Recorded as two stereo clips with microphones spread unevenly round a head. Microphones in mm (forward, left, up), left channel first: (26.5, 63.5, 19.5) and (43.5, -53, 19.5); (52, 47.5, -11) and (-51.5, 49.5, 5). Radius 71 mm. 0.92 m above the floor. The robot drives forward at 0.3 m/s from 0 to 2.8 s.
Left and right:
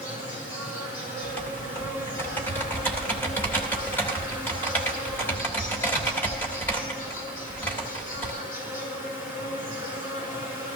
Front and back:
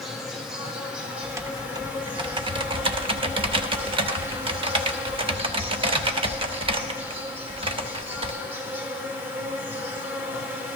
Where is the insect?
90° left, 3 m; by 10.8 s 110° left, 3 m.